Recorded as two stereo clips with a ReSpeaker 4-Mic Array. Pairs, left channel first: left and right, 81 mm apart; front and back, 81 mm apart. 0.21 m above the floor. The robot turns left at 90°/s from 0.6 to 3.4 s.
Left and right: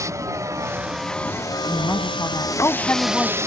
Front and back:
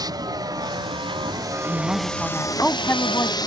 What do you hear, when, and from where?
0.0 s a vehicle: 140° right; by 3.5 s 35° right
1.7 s a woman speaking: 155° left; by 3.4 s straight ahead